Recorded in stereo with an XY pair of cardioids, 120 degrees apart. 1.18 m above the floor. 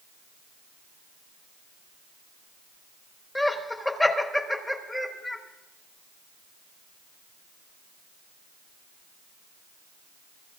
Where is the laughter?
15° left, 3 m.